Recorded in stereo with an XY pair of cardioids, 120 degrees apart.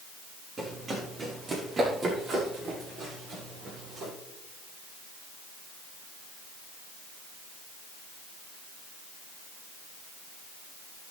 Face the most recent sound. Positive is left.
turn(degrees=-60)